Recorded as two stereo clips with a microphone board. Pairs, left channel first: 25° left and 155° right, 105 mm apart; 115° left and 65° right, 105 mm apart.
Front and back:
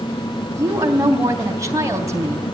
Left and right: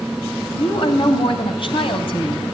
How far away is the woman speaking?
About 3.5 m.